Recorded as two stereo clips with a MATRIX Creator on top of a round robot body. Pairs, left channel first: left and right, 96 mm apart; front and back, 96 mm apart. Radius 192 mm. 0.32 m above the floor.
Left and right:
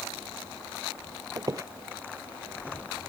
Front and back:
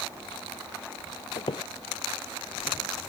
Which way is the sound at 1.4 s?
35° right.